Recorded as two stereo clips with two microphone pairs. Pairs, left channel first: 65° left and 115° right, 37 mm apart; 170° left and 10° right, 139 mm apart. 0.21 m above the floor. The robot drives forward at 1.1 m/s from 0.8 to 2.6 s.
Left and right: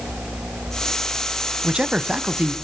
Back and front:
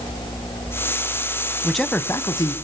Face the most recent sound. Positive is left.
turn(degrees=-150)